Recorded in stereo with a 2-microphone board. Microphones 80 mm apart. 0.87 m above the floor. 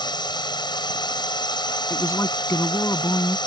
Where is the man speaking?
40° left (ahead or behind).